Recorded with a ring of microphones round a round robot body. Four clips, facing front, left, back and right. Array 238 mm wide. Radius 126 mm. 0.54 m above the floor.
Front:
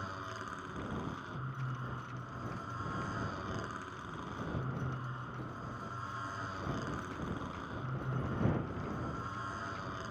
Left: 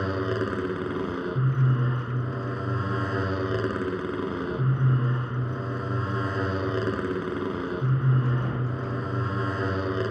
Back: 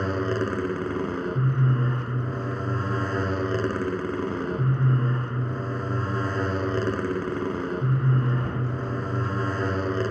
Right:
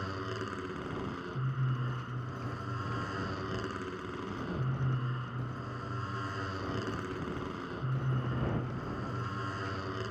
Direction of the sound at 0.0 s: 145° left.